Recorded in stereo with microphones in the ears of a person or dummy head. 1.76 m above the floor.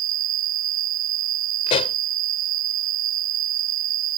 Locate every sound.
0.0 s an insect: 45° right (ahead or behind)
1.7 s a pop: 30° left (ahead or behind)